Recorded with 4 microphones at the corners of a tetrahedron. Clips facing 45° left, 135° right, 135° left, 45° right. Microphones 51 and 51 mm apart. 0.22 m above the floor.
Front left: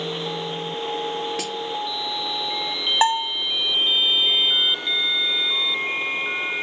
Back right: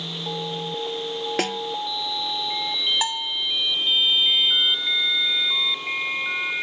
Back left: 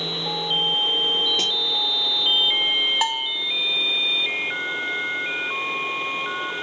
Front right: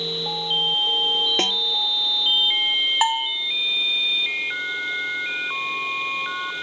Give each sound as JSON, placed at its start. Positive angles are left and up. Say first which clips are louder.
{"t": 1.4, "sound": "a snare drum", "louder": "back right 4 dB, front right 2 dB", "azimuth_deg": -95, "distance_m": 0.7}
{"t": 3.0, "sound": "a bell", "louder": "front left 7 dB, front right 3 dB", "azimuth_deg": 25, "distance_m": 1.2}